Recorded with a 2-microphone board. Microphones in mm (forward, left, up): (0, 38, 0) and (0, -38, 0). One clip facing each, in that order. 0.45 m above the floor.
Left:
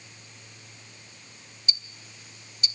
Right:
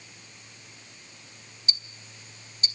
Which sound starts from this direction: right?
Ticking, at 1.7 s.